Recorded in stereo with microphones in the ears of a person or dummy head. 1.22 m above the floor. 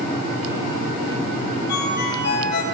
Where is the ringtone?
55° left (ahead or behind), 4.5 m.